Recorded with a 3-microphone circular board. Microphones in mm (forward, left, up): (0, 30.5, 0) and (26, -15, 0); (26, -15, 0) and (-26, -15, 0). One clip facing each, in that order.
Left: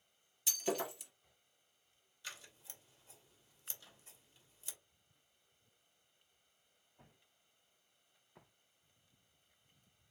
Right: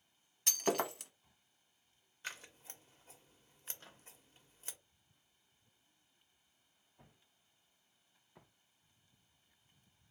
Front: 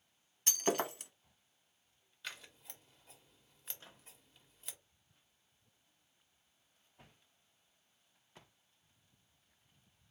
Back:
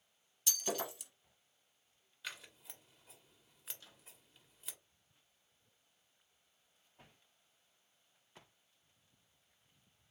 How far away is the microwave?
About 0.7 m.